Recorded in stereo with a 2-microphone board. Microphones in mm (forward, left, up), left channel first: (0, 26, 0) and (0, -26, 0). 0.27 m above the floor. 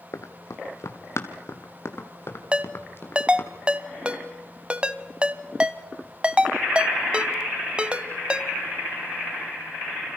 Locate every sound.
0.1 s running footsteps: 70° left (ahead or behind), 2 m; by 3.5 s 45° left (ahead or behind), 4 m
2.5 s a ringtone: 20° right (ahead or behind), 0.8 m